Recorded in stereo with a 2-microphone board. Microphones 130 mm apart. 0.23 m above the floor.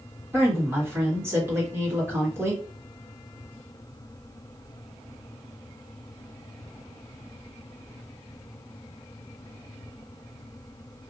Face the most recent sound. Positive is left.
turn(degrees=-20)  # may be behind; listen again after turning